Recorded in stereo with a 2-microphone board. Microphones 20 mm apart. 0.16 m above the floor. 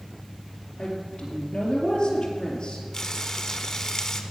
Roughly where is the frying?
Left.